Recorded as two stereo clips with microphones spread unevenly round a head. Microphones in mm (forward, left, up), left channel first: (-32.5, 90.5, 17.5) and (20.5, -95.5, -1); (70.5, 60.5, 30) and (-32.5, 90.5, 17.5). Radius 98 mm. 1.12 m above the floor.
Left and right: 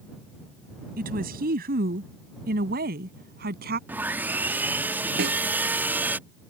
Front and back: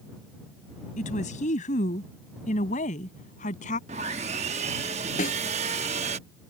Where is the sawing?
160° right.